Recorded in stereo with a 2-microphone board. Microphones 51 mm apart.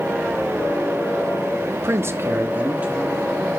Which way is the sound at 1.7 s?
50° right (ahead or behind).